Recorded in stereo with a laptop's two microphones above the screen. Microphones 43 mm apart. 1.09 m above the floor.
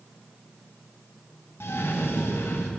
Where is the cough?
75° left (ahead or behind), 1.1 m.